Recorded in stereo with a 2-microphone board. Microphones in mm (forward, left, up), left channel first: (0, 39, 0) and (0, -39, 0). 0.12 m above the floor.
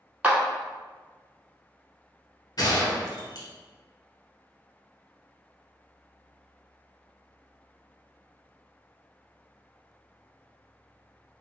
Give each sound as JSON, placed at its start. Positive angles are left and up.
{"t": 0.2, "sound": "a clap", "side_deg": -15, "distance_m": 0.9}
{"t": 2.6, "sound": "a gunshot", "side_deg": 55, "distance_m": 1.6}